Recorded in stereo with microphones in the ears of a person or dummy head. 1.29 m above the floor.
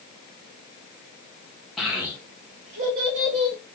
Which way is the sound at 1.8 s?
Centre (ahead or behind).